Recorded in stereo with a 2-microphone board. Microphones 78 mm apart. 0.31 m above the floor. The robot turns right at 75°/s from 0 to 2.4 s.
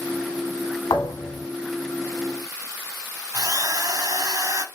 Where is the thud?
85° left, 0.8 m; by 1.5 s 125° left, 0.8 m.